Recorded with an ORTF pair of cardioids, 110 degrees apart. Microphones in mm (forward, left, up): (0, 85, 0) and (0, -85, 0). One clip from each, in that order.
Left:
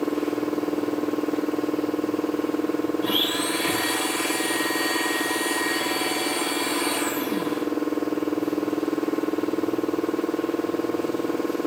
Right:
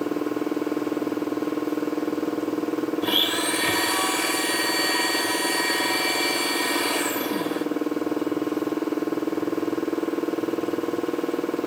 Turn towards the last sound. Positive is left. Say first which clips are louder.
# right 3 dB
turn(degrees=-20)